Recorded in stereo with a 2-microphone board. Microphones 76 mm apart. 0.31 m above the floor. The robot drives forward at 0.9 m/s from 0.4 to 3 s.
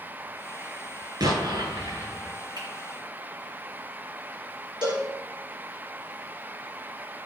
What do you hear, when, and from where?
1.2 s an explosion: 60° right (ahead or behind), 7 m; by 2.4 s 55° right (ahead or behind), 7.5 m
2.6 s a finger snap: 80° right, 5 m
4.8 s a cowbell: 80° right, 4.5 m